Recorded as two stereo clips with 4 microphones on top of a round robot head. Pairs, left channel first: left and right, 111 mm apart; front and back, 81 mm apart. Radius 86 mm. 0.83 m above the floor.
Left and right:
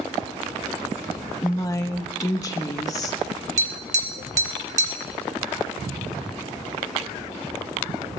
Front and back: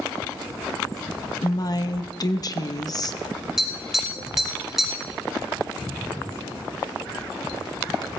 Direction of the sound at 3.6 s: 95° right.